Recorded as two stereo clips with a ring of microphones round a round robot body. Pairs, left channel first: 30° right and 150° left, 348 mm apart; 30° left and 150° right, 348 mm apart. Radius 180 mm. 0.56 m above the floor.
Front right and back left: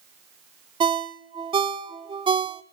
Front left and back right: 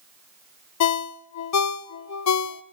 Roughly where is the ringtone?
Left.